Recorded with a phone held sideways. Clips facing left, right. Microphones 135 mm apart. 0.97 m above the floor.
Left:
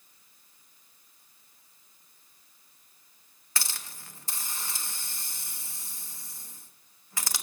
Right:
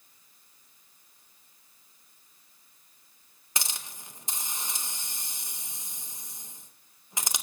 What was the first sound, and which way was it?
A hiss, 20° right (ahead or behind).